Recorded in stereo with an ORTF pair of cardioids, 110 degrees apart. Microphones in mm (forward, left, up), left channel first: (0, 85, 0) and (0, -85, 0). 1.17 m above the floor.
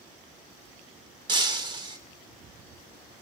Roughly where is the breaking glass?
Ahead right.